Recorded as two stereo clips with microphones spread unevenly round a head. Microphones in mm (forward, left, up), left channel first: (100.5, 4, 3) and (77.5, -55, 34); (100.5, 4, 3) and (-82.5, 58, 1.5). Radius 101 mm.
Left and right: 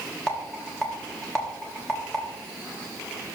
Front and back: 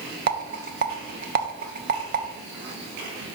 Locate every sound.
0.3 s a rattle: 135° left, 0.9 m